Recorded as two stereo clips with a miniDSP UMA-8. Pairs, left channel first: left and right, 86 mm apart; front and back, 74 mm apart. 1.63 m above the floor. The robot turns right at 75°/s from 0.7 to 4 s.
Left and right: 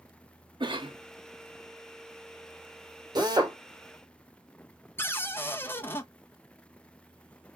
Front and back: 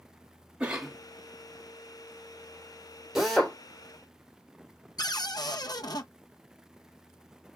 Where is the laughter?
No laughter in this recording.